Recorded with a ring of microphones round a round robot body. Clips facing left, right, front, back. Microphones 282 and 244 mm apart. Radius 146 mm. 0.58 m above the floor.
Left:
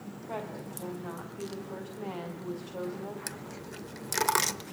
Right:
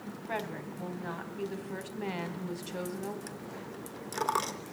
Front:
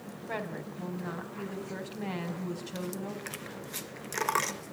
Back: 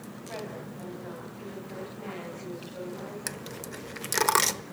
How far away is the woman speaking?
About 4.5 m.